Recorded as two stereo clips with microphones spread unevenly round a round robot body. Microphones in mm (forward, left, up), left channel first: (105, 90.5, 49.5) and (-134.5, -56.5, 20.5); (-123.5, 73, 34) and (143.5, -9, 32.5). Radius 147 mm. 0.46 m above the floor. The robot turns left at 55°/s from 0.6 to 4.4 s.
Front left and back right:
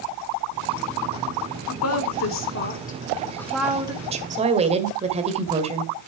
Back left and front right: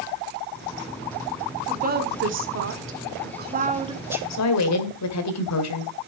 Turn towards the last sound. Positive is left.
turn(degrees=150)